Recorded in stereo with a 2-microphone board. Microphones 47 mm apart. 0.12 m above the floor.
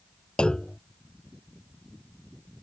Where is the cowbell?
No cowbell in this recording.